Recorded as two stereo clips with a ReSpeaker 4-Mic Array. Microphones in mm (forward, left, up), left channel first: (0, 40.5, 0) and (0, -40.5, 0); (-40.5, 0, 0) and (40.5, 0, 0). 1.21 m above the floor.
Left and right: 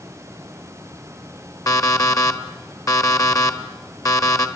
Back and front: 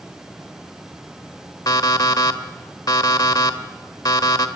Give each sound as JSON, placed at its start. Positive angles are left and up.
{"t": 1.7, "sound": "an alarm clock", "azimuth_deg": 135, "distance_m": 1.1}